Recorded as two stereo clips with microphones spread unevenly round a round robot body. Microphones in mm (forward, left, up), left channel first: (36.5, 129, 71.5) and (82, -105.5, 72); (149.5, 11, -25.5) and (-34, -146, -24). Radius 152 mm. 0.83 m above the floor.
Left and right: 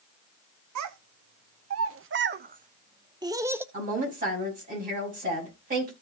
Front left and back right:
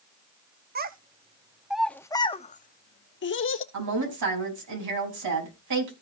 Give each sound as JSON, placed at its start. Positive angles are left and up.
{"t": 0.8, "sound": "a child speaking", "azimuth_deg": -85, "distance_m": 0.9}
{"t": 3.7, "sound": "a woman speaking", "azimuth_deg": -140, "distance_m": 5.0}